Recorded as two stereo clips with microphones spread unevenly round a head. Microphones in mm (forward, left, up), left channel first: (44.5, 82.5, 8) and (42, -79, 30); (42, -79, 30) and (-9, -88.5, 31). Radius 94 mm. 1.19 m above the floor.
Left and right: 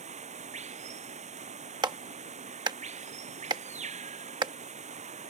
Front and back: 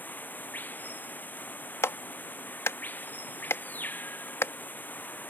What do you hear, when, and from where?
0.0 s running water: 45° right
1.8 s a clap: 25° right